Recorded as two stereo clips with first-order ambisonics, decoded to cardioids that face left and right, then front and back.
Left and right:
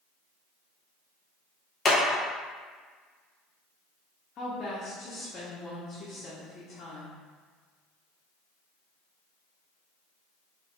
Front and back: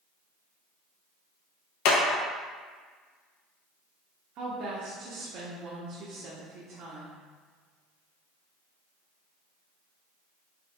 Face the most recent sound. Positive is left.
turn(degrees=145)